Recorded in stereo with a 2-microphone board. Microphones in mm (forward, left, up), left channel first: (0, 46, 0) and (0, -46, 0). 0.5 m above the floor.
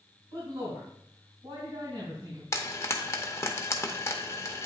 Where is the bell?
No bell in this recording.